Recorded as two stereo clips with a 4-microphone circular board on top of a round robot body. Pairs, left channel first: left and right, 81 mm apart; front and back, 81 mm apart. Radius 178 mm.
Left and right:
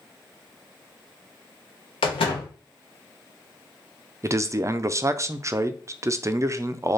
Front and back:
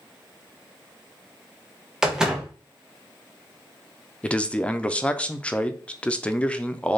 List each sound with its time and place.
2.0 s a door slam: 95° left, 0.6 m
4.2 s a man speaking: 65° right, 0.5 m